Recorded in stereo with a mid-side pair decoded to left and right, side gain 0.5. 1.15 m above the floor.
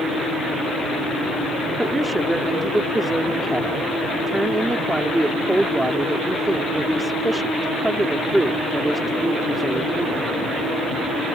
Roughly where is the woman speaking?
Ahead.